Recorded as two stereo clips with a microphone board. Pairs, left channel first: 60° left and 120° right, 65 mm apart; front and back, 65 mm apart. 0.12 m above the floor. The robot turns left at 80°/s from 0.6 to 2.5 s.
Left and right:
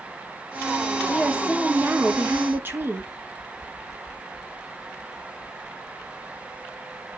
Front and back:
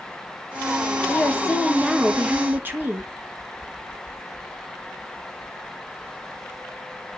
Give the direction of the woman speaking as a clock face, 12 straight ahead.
1 o'clock.